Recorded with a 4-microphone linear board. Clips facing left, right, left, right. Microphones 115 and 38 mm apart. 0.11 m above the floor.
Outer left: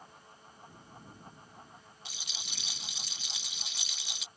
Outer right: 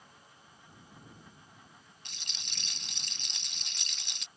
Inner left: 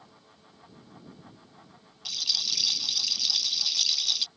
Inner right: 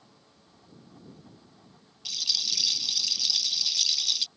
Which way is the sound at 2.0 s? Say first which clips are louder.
Outer left 3 dB, even; 5° left (ahead or behind).